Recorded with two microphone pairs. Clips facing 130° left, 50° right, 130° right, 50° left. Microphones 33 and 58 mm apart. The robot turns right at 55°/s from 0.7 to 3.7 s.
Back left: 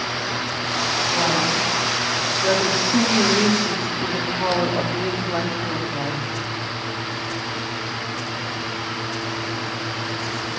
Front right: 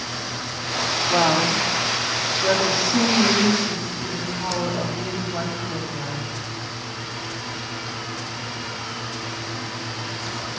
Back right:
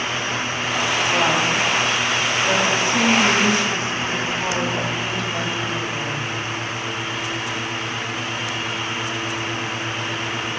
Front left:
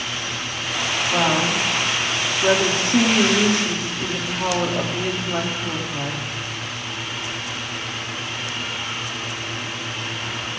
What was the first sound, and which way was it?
A woman speaking, 30° right.